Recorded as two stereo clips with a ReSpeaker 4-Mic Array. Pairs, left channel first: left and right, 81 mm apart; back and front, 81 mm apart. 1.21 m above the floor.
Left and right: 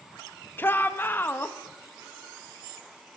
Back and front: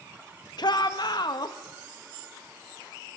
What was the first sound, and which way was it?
A shout, 155° left.